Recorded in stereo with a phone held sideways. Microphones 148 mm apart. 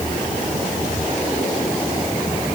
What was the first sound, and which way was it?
Only background noise.